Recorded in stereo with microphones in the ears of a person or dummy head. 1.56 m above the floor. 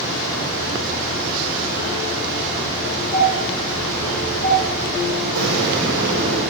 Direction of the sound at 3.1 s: 15° right (ahead or behind).